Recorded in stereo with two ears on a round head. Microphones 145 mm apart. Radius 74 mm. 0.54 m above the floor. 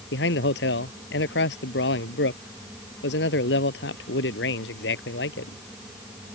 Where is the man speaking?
80° left.